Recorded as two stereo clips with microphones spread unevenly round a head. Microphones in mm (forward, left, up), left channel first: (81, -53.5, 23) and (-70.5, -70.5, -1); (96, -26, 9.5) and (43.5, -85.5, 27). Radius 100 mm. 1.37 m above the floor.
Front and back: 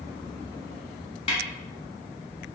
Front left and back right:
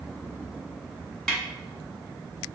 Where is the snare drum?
40° right, 1.0 m.